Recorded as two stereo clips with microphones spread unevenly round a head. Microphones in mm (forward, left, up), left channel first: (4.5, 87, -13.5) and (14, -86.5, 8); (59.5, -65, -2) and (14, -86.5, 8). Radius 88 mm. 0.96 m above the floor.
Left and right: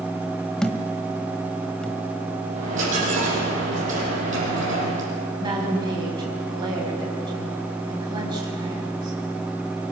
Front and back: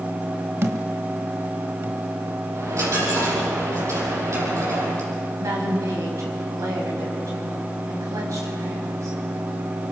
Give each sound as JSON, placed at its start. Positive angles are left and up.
{"t": 0.6, "sound": "a thud", "azimuth_deg": -175, "distance_m": 1.1}
{"t": 2.5, "sound": "a dropped coin", "azimuth_deg": -135, "distance_m": 7.0}
{"t": 5.4, "sound": "a woman speaking", "azimuth_deg": -155, "distance_m": 5.5}